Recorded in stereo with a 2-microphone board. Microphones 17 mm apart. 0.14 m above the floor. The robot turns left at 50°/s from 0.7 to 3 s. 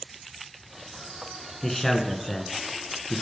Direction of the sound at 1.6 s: 165° left.